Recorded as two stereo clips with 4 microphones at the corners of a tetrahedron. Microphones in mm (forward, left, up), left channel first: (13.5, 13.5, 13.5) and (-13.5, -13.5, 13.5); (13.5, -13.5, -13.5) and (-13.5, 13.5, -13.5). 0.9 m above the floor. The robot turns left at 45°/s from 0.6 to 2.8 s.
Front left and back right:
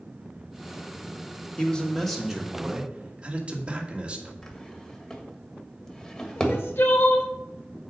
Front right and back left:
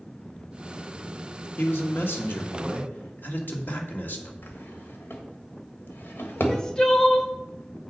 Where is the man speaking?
20° right, 1.8 m; by 4.3 s 75° right, 1.8 m.